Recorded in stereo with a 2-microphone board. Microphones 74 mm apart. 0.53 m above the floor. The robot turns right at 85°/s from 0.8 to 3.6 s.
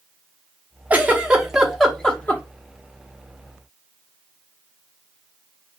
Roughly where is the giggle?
Right.